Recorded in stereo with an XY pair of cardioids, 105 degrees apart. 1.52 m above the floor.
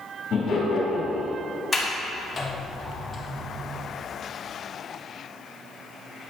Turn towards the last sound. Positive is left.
turn(degrees=25)